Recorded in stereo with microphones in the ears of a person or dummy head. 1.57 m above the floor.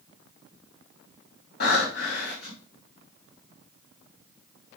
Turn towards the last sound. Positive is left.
turn(degrees=60)  # may be behind; listen again after turning